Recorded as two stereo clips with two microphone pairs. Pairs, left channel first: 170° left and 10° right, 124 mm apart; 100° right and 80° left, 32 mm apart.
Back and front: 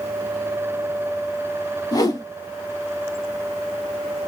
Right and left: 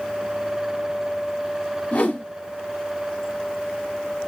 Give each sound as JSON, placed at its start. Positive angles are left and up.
{"t": 1.9, "sound": "a whoosh", "azimuth_deg": -135, "distance_m": 0.9}